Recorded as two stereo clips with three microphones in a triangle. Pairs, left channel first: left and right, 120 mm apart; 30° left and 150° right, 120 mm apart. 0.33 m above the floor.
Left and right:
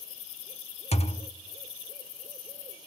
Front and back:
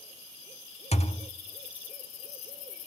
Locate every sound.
0.9 s a thud: 60° left, 0.5 m